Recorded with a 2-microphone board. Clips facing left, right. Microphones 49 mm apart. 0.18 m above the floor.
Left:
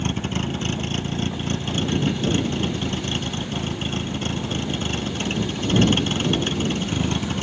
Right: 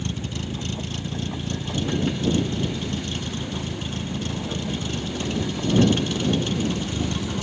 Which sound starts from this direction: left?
A vehicle, at 0.0 s.